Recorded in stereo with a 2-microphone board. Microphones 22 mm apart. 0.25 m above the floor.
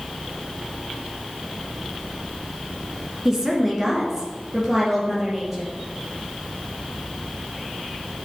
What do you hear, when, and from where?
3.2 s a woman speaking: 10° right (ahead or behind), 2.5 m